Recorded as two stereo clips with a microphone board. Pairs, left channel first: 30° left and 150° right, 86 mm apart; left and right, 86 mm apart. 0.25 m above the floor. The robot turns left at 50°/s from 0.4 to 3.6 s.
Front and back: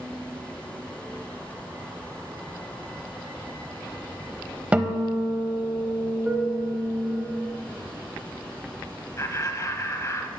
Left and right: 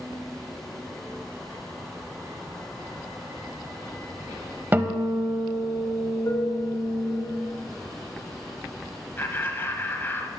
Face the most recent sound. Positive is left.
turn(degrees=45)